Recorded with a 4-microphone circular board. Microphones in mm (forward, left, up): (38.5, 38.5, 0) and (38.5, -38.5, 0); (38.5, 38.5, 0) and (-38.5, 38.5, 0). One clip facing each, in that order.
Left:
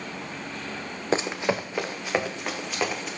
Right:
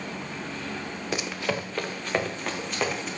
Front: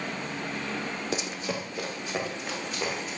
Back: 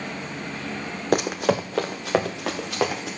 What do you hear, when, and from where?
1.1 s running footsteps: 145° left, 0.8 m; by 3.1 s straight behind, 3 m